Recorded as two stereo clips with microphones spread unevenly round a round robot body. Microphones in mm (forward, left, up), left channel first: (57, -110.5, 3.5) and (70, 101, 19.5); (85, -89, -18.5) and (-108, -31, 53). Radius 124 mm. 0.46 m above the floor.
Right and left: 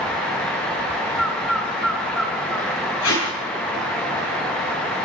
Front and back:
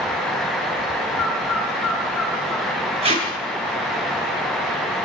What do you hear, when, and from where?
1.2 s a bird: 5° right, 3 m
3.0 s tape being pulled: 135° right, 7.5 m